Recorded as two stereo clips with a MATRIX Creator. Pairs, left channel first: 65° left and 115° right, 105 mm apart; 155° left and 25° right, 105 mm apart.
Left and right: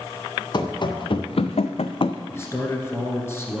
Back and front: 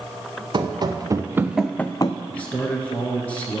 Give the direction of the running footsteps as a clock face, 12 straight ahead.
11 o'clock.